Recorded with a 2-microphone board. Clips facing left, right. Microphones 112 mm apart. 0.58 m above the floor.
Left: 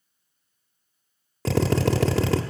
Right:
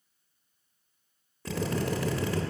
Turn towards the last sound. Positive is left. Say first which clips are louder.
# left 8 dB
turn(degrees=85)